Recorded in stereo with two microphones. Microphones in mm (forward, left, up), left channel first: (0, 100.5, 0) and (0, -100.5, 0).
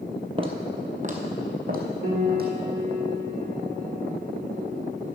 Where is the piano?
65° right (ahead or behind), 1.5 m.